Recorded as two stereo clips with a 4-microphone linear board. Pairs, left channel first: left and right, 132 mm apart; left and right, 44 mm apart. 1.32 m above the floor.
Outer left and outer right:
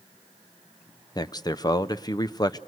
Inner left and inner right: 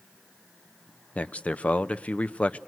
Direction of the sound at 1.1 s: 30° left (ahead or behind).